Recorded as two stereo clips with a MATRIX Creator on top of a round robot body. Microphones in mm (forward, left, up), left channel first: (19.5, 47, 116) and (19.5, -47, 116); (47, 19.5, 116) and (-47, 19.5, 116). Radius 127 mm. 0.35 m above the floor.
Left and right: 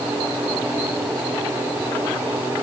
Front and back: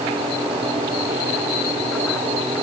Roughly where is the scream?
I don't hear a scream.